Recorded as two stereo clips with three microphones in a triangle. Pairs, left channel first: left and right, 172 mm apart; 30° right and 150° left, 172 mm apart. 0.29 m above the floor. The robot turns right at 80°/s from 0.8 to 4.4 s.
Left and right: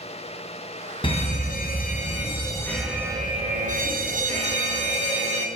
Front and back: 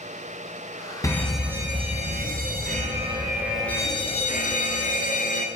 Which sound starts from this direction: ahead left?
A fire alarm, at 1.0 s.